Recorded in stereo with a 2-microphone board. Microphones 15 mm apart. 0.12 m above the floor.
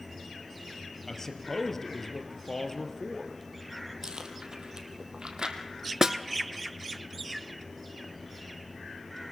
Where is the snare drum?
40° right (ahead or behind), 0.6 m.